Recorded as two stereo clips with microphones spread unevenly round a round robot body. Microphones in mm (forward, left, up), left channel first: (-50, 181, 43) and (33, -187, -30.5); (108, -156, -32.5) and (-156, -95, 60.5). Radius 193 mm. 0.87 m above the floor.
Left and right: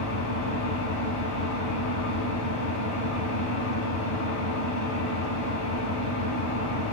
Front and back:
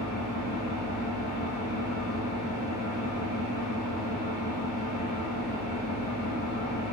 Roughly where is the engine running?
Ahead left.